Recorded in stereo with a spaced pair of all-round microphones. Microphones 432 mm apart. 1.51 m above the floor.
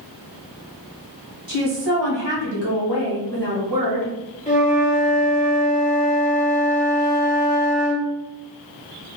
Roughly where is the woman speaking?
Right.